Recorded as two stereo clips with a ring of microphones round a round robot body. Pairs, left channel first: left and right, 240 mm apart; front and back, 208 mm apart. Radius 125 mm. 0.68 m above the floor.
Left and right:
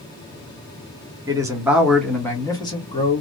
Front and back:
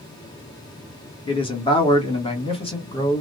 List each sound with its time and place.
1.3 s a man speaking: 35° right, 1.3 m; by 3.2 s 50° left, 1.4 m